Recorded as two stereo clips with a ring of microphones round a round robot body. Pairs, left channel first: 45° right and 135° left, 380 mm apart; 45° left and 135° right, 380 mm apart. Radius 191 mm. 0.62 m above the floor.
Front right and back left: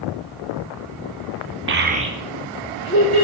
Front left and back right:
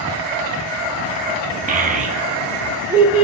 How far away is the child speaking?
About 0.8 m.